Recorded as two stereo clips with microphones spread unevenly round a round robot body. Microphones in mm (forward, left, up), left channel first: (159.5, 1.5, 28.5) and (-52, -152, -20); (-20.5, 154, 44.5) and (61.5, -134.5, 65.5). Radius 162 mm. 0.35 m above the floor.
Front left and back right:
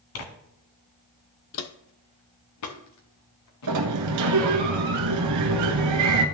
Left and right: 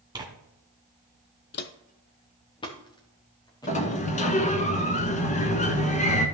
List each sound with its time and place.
0.1 s tearing paper: 5° left, 1.5 m
1.5 s footsteps: 55° left, 0.5 m; by 4.5 s 25° left, 4 m
3.7 s a sliding door: 175° left, 0.9 m